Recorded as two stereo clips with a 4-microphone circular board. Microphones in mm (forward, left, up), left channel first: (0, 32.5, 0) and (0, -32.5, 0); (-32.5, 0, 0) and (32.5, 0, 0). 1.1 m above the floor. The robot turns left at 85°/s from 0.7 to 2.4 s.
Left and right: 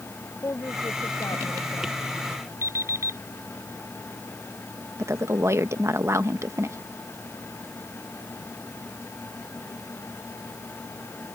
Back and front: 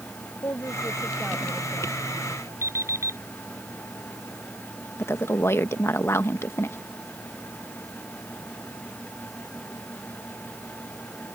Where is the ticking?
No ticking in this recording.